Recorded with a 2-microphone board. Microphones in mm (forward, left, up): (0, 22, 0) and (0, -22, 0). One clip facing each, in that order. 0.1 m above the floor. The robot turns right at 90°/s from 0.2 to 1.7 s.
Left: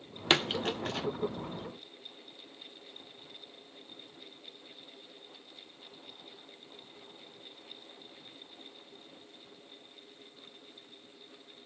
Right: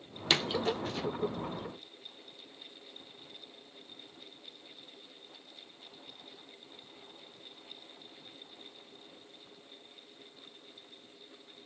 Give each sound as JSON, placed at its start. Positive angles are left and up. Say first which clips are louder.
{"t": 0.3, "sound": "a splash", "louder": "left 1 dB", "side_deg": 30, "distance_m": 0.7}